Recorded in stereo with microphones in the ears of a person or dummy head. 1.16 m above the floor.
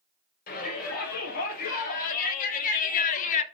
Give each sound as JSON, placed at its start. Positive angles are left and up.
{"t": 0.5, "sound": "a shout", "side_deg": 45, "distance_m": 5.5}